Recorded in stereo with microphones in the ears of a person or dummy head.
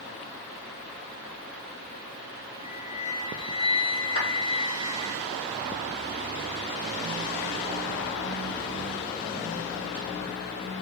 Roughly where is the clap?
Left.